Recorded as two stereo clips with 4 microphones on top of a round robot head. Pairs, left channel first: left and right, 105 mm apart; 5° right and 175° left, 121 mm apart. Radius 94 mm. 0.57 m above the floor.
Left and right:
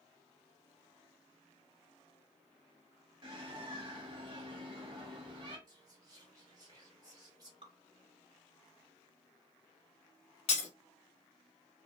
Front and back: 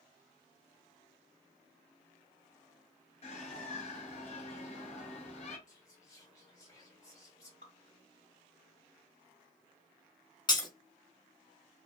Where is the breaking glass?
55° left, 0.9 m.